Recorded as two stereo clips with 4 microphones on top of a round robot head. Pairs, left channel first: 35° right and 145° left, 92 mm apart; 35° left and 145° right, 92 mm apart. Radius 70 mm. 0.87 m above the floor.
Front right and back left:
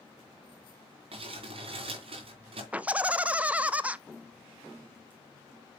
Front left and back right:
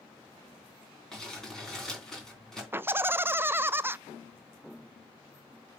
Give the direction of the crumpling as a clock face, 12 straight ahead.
8 o'clock.